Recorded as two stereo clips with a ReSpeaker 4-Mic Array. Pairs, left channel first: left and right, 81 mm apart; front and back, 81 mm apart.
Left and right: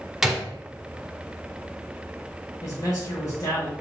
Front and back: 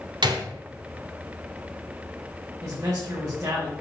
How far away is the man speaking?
About 1.6 m.